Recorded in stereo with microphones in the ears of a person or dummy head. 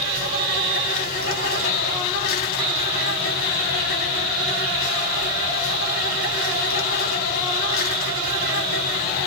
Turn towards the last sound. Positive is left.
turn(degrees=45)  # may be behind; listen again after turning